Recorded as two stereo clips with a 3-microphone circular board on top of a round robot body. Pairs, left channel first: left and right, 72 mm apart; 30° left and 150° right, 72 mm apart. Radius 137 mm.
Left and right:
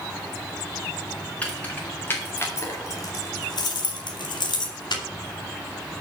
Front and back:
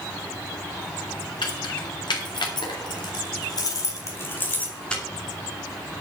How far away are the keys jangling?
About 4 m.